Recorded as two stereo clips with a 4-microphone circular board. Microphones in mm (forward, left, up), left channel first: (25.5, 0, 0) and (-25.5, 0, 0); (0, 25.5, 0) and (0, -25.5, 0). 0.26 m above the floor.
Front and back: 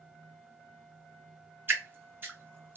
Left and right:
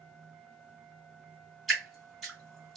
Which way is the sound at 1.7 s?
Straight behind.